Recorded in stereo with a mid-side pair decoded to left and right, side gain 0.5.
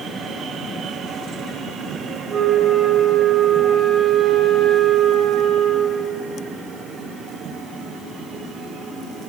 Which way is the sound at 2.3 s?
50° right.